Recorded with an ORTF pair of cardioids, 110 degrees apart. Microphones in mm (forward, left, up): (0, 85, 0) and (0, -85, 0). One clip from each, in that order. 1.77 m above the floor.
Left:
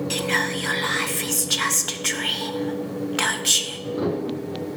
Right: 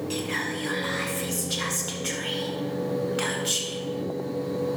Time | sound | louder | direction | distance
0.1 | whispering | left 7 dB | 40° left | 1.3 m